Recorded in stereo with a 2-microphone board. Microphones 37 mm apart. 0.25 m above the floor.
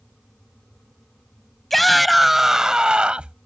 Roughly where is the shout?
Centre.